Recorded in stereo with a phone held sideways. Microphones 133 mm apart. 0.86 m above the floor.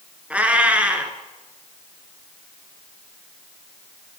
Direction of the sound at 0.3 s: 10° right (ahead or behind).